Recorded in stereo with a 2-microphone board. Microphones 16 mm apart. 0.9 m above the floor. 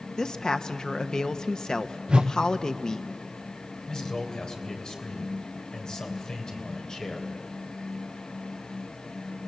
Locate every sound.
0.2 s a woman speaking: 50° left (ahead or behind), 1.0 m
2.1 s a whoosh: 75° right (ahead or behind), 0.6 m
3.9 s a man speaking: 55° left (ahead or behind), 3.5 m